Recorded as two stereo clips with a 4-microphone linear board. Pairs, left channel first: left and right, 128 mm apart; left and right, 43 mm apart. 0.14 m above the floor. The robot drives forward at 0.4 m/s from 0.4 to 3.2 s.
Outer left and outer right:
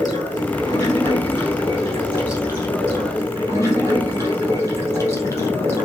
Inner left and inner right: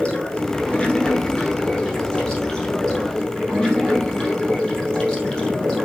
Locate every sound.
0.0 s running water: 25° left (ahead or behind), 2 m; by 5.8 s 20° left (ahead or behind), 3 m